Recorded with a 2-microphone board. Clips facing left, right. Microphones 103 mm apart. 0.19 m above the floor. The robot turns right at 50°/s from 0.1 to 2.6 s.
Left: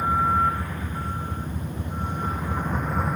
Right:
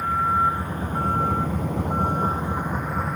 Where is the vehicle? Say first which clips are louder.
Even; 10° left (ahead or behind); by 3.2 s 5° left (ahead or behind).